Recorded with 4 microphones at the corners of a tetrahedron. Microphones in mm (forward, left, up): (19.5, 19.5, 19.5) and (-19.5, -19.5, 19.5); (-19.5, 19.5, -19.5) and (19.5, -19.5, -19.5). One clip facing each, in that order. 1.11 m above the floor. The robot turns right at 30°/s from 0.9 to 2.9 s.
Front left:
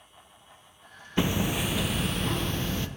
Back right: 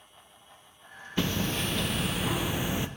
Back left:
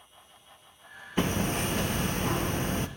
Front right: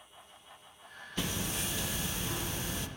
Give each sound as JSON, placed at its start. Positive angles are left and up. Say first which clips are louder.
{"t": 1.2, "sound": "hammering", "louder": "front left 3 dB, back left 8 dB", "azimuth_deg": 105, "distance_m": 0.6}